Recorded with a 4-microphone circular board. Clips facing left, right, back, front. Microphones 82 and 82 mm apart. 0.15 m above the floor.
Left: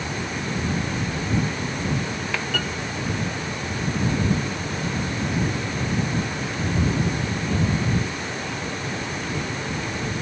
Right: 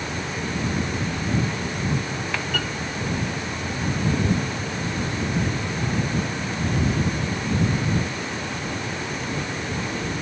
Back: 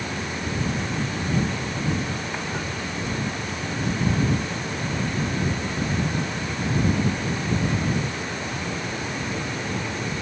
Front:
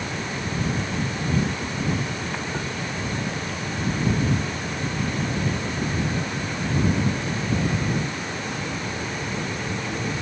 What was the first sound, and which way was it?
Only background noise.